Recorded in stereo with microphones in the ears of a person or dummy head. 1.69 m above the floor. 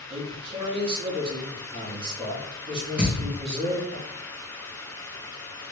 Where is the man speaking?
35° right (ahead or behind), 1.4 m.